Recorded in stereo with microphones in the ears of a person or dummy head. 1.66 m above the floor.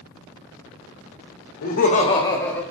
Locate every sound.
1.6 s laughter: 50° left (ahead or behind), 0.7 m; by 2.6 s 5° left (ahead or behind), 0.8 m